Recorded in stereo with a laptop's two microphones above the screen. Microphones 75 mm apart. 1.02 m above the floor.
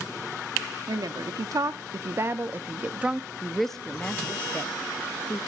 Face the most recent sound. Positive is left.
turn(degrees=40)  # may be behind; listen again after turning